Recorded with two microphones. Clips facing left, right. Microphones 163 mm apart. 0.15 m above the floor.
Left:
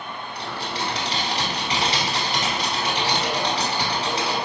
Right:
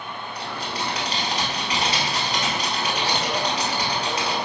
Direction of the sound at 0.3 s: 30° left (ahead or behind).